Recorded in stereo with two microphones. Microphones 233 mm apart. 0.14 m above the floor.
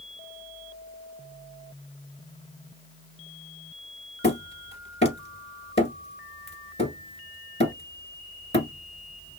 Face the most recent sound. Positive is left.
turn(degrees=30)  # may be behind; listen again after turning